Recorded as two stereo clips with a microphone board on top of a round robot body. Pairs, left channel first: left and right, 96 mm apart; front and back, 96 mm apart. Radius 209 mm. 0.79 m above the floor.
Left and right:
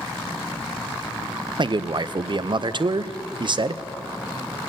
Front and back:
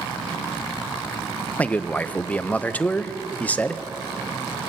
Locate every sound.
1.6 s a man speaking: 70° right, 0.6 m